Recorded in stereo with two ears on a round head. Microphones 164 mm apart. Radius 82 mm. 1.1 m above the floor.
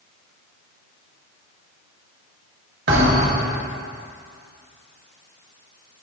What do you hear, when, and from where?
2.9 s a thud: 65° right (ahead or behind), 2.5 m